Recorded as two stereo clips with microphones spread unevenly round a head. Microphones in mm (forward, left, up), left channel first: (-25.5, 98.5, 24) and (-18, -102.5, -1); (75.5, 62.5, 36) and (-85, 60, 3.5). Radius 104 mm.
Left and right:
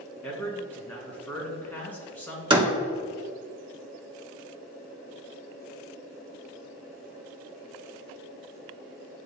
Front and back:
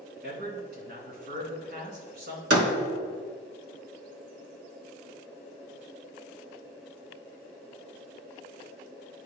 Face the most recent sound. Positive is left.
turn(degrees=-155)